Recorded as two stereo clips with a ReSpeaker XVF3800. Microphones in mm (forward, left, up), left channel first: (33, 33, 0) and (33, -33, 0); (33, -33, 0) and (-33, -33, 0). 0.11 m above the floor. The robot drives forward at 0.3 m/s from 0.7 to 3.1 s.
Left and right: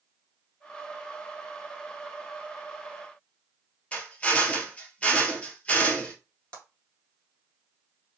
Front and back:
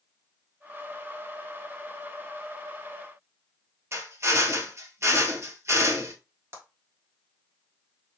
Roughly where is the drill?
Behind left.